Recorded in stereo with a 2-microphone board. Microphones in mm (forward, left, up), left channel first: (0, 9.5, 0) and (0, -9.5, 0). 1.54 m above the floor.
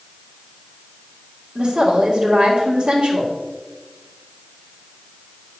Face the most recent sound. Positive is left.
turn(degrees=-80)